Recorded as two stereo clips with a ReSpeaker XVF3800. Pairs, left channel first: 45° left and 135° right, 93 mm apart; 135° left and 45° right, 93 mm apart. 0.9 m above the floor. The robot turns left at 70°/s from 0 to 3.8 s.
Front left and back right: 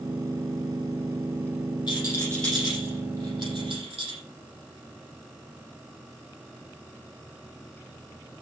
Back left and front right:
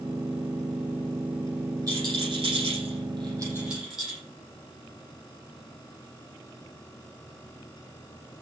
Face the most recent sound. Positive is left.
turn(degrees=-130)